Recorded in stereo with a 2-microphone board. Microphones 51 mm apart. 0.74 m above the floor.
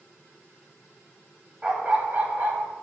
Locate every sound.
1.6 s a dog barking: 20° right (ahead or behind), 1.2 m; by 2.7 s 40° right (ahead or behind), 1.6 m